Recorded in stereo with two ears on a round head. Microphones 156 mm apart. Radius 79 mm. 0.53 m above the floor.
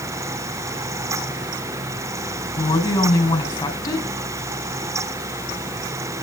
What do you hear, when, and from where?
2.6 s a woman speaking: 20° left (ahead or behind), 4 m